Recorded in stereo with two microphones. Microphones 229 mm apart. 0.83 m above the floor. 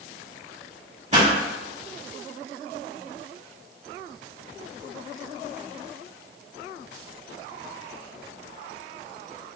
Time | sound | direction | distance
1.1 | a pop | 30° right (ahead or behind) | 2.0 m